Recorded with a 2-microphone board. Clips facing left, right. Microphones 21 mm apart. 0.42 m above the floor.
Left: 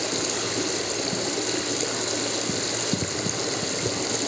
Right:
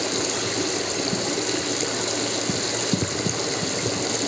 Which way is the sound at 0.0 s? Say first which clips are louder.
Right 2 dB; 10° right (ahead or behind).